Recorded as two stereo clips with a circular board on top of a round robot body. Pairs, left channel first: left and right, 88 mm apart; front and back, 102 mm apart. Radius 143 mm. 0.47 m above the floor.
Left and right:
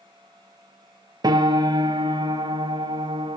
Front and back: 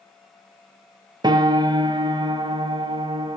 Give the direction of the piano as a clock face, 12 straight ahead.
4 o'clock.